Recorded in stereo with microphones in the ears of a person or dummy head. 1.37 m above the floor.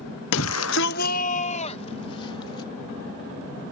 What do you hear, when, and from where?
0.3 s a shout: 65° left (ahead or behind); by 2.7 s 25° left (ahead or behind)